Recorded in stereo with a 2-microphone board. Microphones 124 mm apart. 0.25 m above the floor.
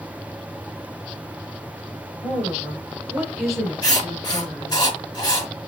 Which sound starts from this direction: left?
Writing, at 3.8 s.